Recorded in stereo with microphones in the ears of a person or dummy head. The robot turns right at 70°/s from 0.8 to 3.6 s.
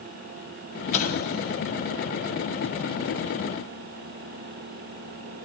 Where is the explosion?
35° left (ahead or behind), 3 m; by 1.6 s 75° left (ahead or behind), 3 m.